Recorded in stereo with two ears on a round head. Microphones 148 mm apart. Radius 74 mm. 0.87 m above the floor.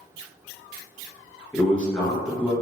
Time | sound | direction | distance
1.5 | a man speaking | 5° left (ahead or behind) | 0.8 m